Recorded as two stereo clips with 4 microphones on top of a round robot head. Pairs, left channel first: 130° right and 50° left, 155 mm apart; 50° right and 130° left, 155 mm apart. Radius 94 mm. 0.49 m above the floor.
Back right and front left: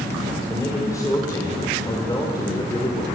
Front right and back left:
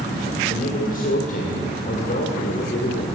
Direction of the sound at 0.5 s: 60° right.